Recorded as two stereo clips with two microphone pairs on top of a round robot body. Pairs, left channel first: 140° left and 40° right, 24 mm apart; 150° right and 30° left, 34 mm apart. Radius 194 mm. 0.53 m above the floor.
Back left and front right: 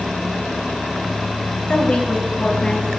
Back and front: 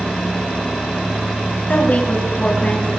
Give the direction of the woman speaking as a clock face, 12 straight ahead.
6 o'clock.